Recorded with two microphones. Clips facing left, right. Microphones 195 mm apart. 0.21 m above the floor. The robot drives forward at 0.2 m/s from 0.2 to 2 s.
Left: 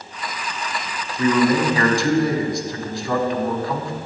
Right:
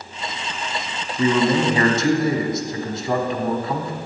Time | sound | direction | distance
1.2 | a man speaking | 25° right (ahead or behind) | 1.2 m